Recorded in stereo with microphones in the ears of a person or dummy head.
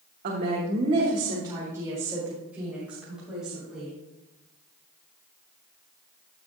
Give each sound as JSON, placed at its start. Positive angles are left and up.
{"t": 0.2, "sound": "a woman speaking", "side_deg": -55, "distance_m": 1.4}